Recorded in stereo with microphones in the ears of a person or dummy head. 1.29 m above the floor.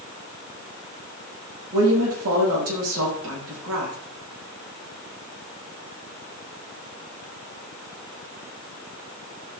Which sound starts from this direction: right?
A woman speaking, at 1.7 s.